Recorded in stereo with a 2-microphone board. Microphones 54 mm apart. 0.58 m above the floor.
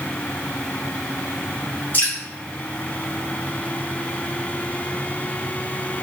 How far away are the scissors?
I don't hear scissors.